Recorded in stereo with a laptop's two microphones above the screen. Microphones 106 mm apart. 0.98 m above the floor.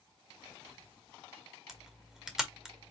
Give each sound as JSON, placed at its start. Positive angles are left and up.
{"t": 1.7, "sound": "a camera shutter", "side_deg": -5, "distance_m": 0.9}